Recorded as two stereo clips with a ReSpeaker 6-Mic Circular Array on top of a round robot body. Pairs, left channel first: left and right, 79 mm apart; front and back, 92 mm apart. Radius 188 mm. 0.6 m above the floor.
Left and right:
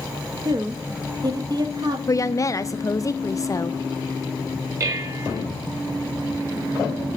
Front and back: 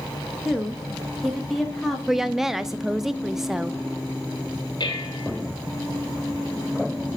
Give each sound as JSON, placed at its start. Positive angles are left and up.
{"t": 0.5, "sound": "a woman speaking", "azimuth_deg": -90, "distance_m": 1.8}
{"t": 2.1, "sound": "a woman speaking", "azimuth_deg": 95, "distance_m": 0.7}
{"t": 4.8, "sound": "dishes clattering", "azimuth_deg": -40, "distance_m": 1.8}